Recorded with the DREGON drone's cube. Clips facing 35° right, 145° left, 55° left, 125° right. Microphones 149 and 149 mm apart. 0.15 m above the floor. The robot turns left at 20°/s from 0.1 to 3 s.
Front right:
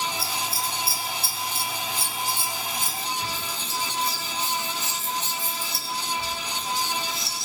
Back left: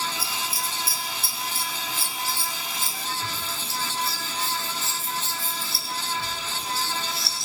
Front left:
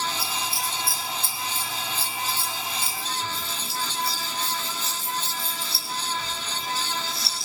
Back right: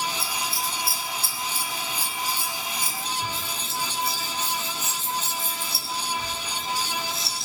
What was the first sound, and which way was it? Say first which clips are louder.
Scissors: front right 2 dB, even; 25° right.